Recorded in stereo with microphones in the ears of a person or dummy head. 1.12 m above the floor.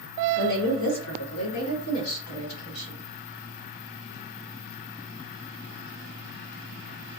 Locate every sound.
0.4 s a woman speaking: 45° left (ahead or behind), 0.9 m; by 3.0 s 70° left (ahead or behind), 1.9 m